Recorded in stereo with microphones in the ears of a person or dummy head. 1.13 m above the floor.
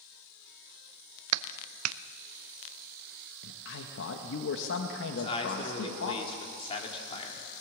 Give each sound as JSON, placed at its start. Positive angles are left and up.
{"t": 1.3, "sound": "a clap", "side_deg": -85, "distance_m": 0.5}
{"t": 3.4, "sound": "a man speaking", "side_deg": 65, "distance_m": 1.4}
{"t": 5.1, "sound": "a man speaking", "side_deg": 25, "distance_m": 3.0}